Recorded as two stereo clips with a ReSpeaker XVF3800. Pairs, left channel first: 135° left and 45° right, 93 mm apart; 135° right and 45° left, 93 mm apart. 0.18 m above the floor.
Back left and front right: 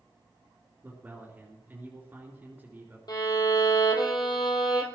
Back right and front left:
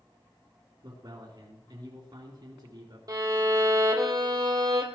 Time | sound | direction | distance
0.8 | a man speaking | 20° left | 3 m
3.1 | a violin | 95° left | 2.5 m